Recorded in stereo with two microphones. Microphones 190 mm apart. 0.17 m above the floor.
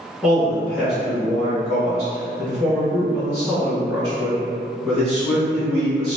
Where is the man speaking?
10° right (ahead or behind), 1.8 m.